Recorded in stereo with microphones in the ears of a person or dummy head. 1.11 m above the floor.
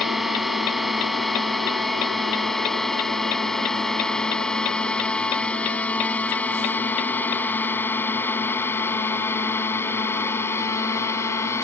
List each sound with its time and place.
0.0 s a drone: 5° left (ahead or behind); by 11.7 s 20° left (ahead or behind)